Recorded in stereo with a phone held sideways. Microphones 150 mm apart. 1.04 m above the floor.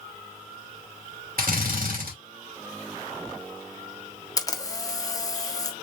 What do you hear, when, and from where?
1.4 s a drill: 70° right (ahead or behind), 2.5 m
4.4 s a camera shutter: 25° left (ahead or behind), 0.8 m